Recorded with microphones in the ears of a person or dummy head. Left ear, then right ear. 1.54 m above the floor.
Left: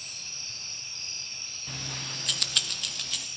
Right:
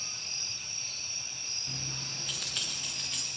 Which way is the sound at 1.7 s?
30° left (ahead or behind).